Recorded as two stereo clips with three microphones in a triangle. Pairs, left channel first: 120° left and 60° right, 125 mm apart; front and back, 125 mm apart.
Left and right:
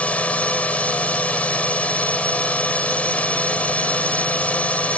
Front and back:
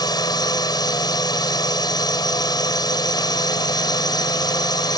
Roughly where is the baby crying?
I don't hear a baby crying.